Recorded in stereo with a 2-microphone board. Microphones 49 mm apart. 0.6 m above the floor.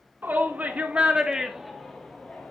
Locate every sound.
0.2 s a shout: 45° right (ahead or behind), 1.6 m; by 2.5 s 25° left (ahead or behind), 1.6 m